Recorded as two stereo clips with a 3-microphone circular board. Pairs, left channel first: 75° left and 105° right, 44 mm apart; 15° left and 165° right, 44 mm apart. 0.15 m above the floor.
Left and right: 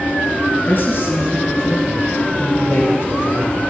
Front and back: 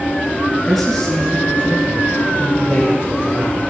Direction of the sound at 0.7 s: 105° left.